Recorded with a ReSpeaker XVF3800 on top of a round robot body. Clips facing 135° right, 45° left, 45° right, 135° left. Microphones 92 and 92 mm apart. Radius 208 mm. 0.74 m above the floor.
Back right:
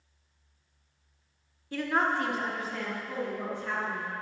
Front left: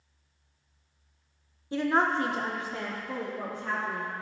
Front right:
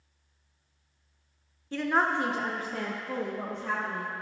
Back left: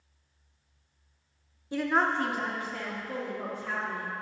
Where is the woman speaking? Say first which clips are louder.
Front left 2 dB, even; 80° left, 0.9 m; by 4.1 s 25° right, 2 m.